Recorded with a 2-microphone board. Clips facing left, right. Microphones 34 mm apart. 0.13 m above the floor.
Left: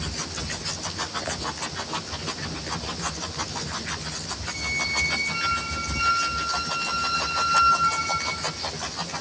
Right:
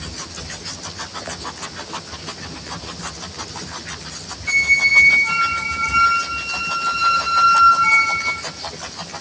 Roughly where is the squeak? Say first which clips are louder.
Right 14 dB; right.